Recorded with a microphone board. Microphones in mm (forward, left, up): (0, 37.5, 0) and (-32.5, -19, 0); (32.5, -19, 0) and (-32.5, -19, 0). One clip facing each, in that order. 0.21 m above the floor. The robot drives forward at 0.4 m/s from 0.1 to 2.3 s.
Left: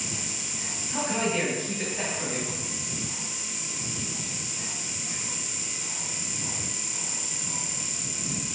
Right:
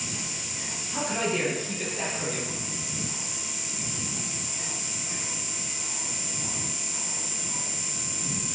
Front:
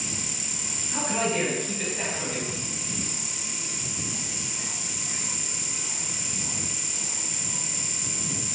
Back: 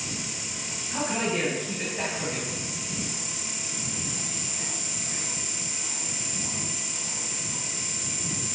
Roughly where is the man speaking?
Left.